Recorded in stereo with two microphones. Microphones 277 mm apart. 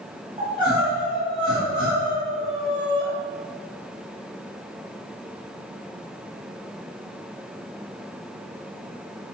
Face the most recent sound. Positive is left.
turn(degrees=-20)  # may be behind; listen again after turning